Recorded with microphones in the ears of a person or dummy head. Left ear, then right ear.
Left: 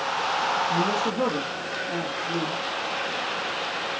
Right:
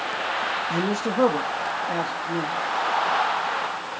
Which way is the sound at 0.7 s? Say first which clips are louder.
Left 1 dB; 50° right (ahead or behind).